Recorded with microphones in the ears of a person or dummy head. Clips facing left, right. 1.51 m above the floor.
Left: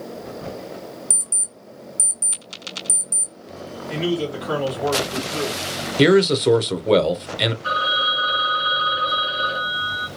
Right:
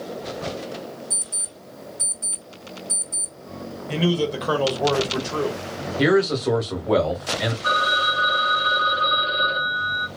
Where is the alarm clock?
35° left (ahead or behind), 1.2 m.